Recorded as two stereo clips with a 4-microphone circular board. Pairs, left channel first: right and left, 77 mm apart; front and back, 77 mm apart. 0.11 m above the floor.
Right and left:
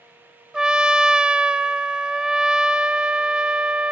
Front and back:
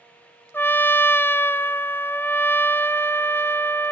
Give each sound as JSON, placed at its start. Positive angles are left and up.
{"t": 0.5, "sound": "a trumpet", "azimuth_deg": 25, "distance_m": 0.7}